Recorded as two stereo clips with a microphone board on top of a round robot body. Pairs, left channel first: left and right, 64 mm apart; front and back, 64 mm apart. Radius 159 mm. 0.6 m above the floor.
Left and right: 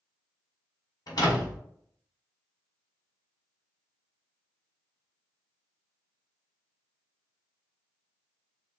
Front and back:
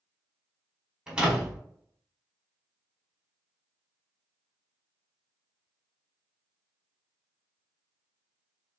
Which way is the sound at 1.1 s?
105° left.